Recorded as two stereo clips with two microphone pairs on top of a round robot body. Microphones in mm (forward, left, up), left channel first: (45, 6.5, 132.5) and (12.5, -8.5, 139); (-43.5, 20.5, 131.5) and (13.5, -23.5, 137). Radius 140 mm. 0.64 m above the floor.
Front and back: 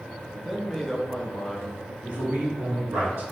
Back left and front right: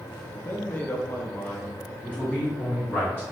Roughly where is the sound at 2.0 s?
Behind right.